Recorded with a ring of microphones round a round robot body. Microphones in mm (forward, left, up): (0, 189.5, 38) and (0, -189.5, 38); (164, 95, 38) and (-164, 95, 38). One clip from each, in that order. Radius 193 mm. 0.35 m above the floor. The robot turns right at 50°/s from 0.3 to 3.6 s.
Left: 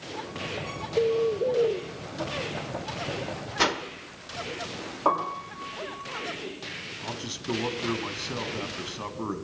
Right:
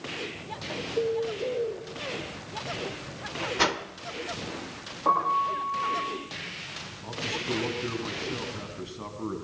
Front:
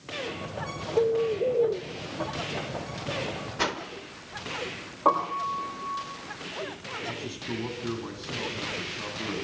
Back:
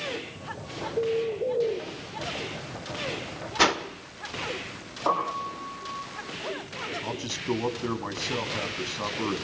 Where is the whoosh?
175° left, 1.1 m.